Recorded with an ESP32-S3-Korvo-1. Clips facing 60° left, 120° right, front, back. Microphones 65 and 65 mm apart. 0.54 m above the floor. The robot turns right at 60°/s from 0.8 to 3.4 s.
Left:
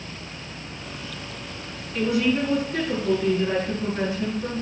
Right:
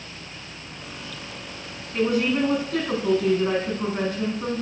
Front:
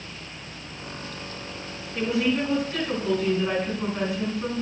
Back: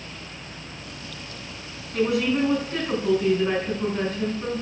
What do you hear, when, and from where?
1.9 s a woman speaking: 170° right, 5.5 m; by 4.6 s 80° right, 5.5 m